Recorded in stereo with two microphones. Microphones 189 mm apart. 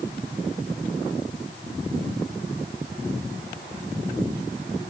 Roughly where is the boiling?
No boiling in this recording.